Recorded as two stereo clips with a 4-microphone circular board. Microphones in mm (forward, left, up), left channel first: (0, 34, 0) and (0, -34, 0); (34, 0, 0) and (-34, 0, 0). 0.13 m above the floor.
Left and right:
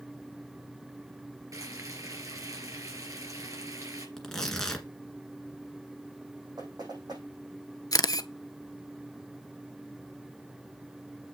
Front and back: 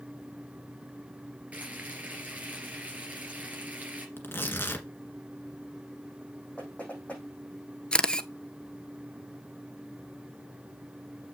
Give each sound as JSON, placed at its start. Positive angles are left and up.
{"t": 1.5, "sound": "frying", "azimuth_deg": -115, "distance_m": 2.5}
{"t": 4.2, "sound": "tearing paper", "azimuth_deg": 10, "distance_m": 1.7}
{"t": 6.6, "sound": "knocking", "azimuth_deg": -70, "distance_m": 5.5}
{"t": 7.9, "sound": "a camera shutter", "azimuth_deg": 75, "distance_m": 0.5}